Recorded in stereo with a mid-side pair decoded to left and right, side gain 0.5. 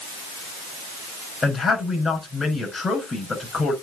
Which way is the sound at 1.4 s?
25° left.